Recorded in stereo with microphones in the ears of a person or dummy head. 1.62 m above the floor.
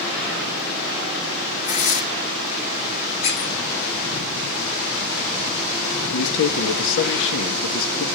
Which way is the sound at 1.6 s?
40° left (ahead or behind).